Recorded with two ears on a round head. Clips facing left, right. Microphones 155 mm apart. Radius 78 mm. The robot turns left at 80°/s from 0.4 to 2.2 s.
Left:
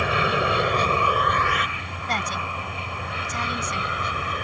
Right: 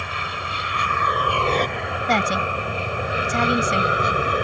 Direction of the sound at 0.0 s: 55° left (ahead or behind).